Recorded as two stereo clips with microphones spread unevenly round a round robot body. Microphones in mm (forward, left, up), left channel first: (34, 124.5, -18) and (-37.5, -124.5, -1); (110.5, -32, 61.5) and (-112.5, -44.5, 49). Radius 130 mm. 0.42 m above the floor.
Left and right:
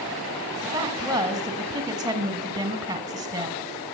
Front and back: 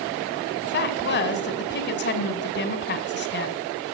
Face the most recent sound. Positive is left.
turn(degrees=-30)